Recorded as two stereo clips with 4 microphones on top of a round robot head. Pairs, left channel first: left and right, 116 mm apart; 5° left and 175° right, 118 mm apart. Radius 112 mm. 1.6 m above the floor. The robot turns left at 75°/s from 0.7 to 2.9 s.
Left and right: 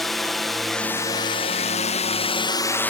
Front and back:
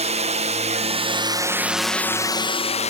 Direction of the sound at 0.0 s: Straight behind.